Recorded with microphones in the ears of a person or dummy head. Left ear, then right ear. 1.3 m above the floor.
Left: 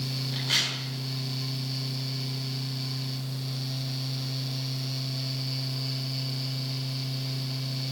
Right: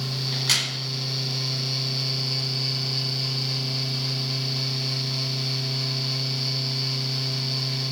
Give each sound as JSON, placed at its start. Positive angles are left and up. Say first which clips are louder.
{"t": 0.3, "sound": "a crack", "louder": "right 3 dB", "side_deg": -70, "distance_m": 4.5}